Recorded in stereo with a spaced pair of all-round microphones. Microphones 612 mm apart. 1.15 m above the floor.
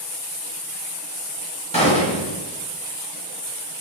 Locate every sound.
1.7 s a gunshot: 10° left (ahead or behind), 0.9 m